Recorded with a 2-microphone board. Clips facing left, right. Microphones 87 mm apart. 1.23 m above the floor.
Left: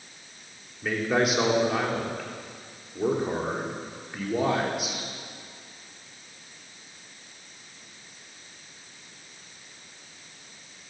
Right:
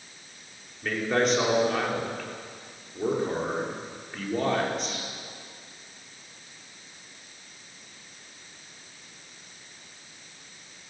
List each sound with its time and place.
0.8 s a man speaking: 10° left (ahead or behind), 3 m